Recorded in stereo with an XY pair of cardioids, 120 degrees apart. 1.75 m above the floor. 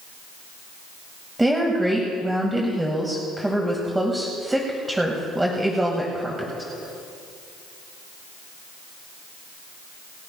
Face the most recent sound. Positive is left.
turn(degrees=-10)